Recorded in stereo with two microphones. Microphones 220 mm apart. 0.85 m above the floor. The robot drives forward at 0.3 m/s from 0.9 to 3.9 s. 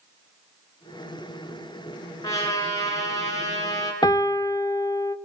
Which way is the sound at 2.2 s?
15° left (ahead or behind).